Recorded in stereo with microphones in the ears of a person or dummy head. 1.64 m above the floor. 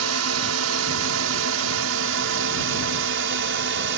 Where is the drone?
70° right (ahead or behind); by 4.0 s 55° right (ahead or behind).